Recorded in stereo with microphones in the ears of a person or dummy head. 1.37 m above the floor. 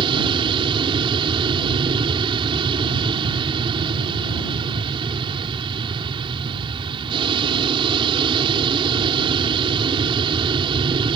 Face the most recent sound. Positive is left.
turn(degrees=-25)  # may be behind; listen again after turning